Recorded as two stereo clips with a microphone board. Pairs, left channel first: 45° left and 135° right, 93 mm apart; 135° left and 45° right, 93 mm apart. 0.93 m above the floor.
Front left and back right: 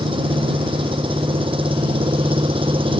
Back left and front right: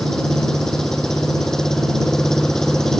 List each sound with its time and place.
0.0 s an engine running: 140° right